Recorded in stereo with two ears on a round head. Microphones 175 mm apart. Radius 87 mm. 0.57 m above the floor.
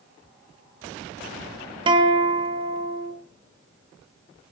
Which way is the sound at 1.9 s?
25° right (ahead or behind).